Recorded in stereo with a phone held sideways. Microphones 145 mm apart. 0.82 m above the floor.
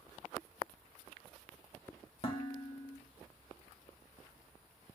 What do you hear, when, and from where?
2.2 s dishes clattering: 40° left (ahead or behind), 0.9 m